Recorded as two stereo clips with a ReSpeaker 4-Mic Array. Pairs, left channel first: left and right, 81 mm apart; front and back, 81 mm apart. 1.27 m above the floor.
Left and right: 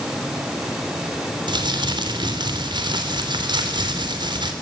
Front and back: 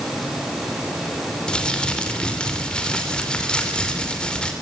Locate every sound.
1.5 s crumpling: 80° right, 3 m